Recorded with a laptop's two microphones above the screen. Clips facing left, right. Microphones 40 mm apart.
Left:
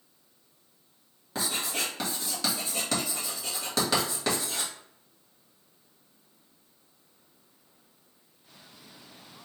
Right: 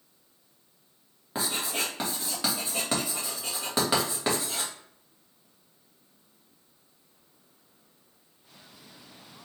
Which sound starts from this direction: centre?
Writing, at 1.4 s.